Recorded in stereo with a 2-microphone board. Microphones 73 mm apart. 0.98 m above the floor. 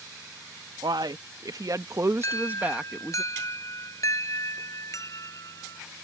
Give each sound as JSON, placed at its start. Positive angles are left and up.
{"t": 0.8, "sound": "a man speaking", "side_deg": -75}
{"t": 2.2, "sound": "an alarm", "side_deg": 45}